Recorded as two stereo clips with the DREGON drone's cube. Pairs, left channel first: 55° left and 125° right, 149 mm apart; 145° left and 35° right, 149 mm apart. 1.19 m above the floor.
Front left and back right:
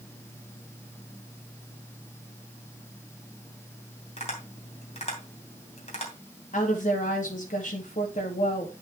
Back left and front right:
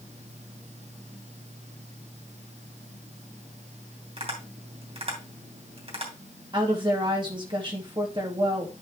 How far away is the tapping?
About 3 m.